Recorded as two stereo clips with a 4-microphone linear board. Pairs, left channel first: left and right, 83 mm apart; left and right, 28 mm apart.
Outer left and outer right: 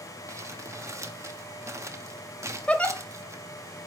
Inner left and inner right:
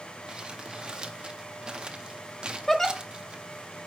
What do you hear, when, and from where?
0.3 s crumpling: 35° right (ahead or behind), 0.6 m
2.7 s a giggle: 15° left (ahead or behind), 0.9 m